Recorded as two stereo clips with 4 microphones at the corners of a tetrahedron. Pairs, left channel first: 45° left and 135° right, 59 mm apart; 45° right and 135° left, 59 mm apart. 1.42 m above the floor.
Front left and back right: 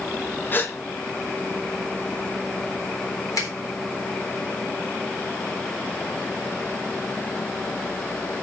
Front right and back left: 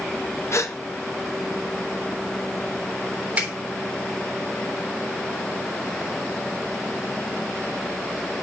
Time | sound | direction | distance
0.5 | a gasp | 10° right | 0.8 m
3.4 | a finger snap | 65° left | 3.5 m